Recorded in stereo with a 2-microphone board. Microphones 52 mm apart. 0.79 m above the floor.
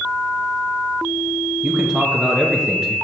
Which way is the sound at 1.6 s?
10° right (ahead or behind).